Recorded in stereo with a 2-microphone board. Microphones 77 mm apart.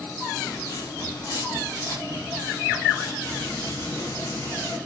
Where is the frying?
35° left (ahead or behind), 1.2 m.